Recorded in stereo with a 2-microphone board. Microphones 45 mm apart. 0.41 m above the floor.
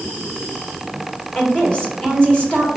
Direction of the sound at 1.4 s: 25° left (ahead or behind).